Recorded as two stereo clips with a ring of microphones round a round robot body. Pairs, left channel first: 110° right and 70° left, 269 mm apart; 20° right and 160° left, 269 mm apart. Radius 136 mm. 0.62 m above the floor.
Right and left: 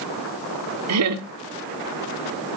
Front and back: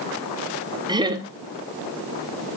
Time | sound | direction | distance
0.9 | laughter | 85° left | 1.4 m